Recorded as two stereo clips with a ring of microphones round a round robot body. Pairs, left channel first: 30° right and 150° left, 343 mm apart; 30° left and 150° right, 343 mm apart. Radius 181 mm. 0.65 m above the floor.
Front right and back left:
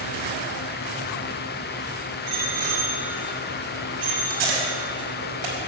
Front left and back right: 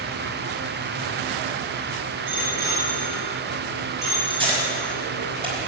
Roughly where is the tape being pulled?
Behind left.